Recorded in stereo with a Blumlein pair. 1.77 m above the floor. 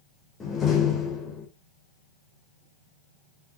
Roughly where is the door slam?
Ahead.